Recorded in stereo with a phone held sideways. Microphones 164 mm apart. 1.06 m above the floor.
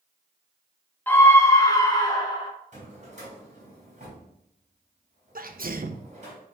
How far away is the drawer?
About 3.5 m.